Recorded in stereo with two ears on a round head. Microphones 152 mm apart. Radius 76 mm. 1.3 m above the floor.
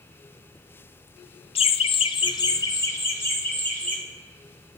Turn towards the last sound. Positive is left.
turn(degrees=10)  # may be behind; listen again after turning